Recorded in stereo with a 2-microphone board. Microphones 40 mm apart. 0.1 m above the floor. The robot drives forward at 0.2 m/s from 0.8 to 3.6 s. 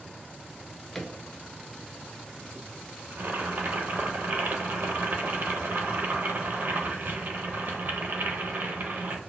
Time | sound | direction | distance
0.5 | a drawer | 5° left (ahead or behind) | 0.5 m
3.1 | boiling | 55° right (ahead or behind) | 0.6 m